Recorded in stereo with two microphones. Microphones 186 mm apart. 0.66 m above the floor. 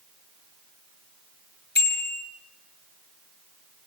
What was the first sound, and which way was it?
A bicycle bell, 65° left (ahead or behind).